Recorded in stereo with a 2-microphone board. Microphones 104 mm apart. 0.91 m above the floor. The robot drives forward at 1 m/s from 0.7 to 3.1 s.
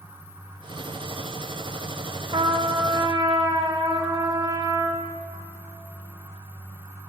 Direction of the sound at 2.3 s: 55° right (ahead or behind).